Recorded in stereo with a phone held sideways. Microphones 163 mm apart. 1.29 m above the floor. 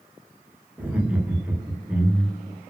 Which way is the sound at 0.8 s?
10° right (ahead or behind).